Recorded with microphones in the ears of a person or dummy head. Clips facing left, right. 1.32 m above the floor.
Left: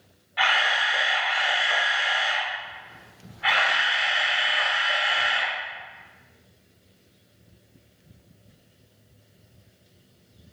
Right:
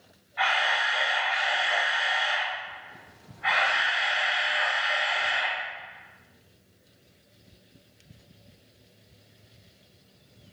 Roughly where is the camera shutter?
Left.